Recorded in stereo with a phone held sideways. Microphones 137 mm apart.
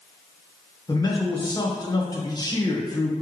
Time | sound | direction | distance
0.9 | a man speaking | 30° left (ahead or behind) | 1.4 m